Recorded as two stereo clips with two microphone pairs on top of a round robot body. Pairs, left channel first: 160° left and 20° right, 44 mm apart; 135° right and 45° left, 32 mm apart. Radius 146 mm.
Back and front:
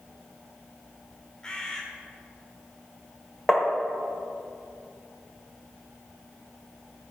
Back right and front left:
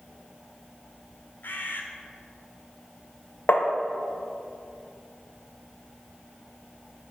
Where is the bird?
125° right, 1.5 m.